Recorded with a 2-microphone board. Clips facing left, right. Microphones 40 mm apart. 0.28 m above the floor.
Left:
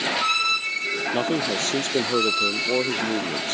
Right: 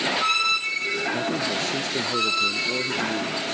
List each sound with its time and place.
1.1 s a man speaking: 60° left (ahead or behind)